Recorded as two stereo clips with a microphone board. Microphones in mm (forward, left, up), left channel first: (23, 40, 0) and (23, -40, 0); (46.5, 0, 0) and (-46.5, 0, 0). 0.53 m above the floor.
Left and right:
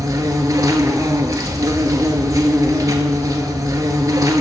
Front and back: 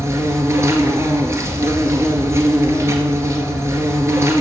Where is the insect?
125° right, 0.9 m.